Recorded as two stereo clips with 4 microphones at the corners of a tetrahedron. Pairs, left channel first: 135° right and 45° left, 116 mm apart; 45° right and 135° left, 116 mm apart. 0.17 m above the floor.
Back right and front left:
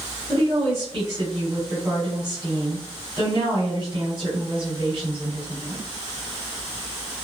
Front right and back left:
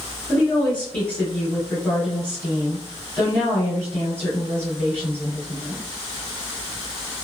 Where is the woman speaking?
30° left, 1.9 m.